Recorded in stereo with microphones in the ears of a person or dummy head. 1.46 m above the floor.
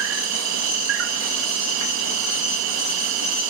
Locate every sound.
0.0 s an insect: 65° right (ahead or behind)